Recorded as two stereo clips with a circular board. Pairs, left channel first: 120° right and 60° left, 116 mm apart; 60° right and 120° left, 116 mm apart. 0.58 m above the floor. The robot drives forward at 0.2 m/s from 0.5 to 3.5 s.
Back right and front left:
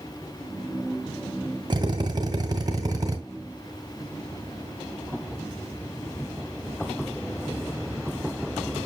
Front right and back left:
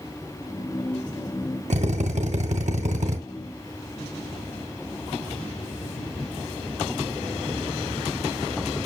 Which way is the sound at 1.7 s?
110° left.